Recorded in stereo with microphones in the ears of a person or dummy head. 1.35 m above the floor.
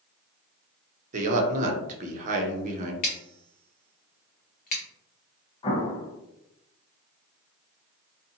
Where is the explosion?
30° left (ahead or behind), 0.9 m.